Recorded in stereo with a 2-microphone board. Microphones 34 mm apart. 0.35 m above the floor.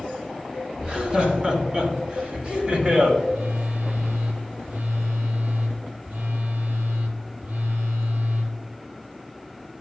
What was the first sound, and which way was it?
Laughter, 30° right (ahead or behind).